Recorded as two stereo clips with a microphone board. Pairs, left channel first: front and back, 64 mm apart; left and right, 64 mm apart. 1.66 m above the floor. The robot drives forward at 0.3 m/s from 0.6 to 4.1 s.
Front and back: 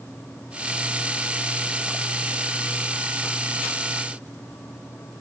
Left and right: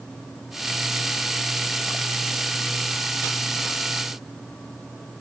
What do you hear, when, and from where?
Only background noise.